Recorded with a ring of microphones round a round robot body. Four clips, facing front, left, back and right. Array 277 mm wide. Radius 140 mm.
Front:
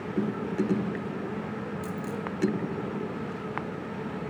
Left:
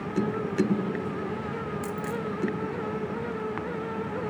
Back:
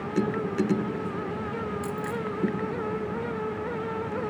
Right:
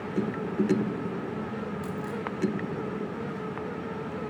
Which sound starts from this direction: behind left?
A dropped coin, at 1.8 s.